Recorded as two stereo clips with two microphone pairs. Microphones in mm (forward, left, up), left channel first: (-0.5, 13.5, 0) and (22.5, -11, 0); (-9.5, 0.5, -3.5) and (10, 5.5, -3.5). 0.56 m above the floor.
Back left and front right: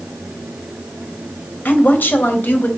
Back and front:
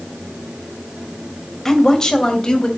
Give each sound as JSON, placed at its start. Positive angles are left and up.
{"t": 1.6, "sound": "a woman speaking", "azimuth_deg": 125, "distance_m": 2.5}